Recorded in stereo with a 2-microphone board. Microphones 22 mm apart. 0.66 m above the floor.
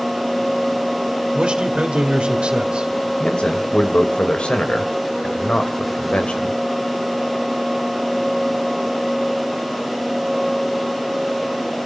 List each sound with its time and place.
1.3 s a man speaking: 55° right (ahead or behind), 2.5 m
3.2 s a man speaking: 50° left (ahead or behind), 2.5 m